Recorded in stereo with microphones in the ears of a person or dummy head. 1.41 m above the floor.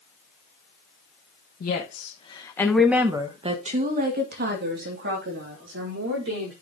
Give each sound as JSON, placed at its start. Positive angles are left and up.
{"t": 1.6, "sound": "a woman speaking", "side_deg": 50, "distance_m": 1.7}